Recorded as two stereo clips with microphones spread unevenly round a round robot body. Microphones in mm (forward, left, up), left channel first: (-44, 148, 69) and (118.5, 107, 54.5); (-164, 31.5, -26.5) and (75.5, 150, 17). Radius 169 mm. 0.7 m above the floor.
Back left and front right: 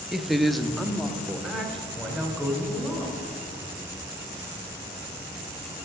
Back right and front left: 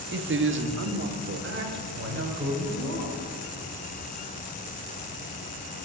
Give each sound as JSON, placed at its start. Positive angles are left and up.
{"t": 0.1, "sound": "a woman speaking", "azimuth_deg": 70, "distance_m": 0.8}